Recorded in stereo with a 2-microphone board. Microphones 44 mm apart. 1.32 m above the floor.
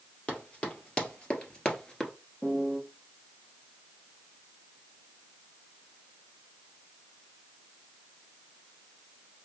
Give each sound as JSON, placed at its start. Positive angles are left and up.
{"t": 0.3, "sound": "running footsteps", "side_deg": 30, "distance_m": 2.0}
{"t": 2.4, "sound": "a piano", "side_deg": 15, "distance_m": 0.9}